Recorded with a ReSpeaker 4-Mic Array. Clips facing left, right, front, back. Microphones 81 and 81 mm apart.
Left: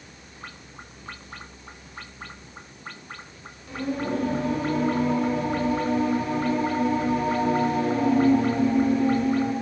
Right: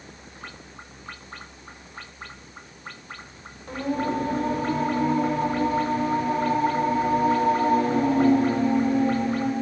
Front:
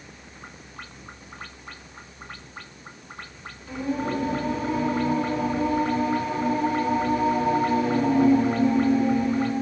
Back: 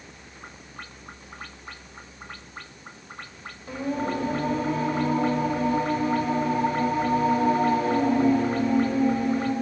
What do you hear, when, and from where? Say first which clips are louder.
3.7 s singing: right 2 dB, front 1 dB; 135° right, 1.7 m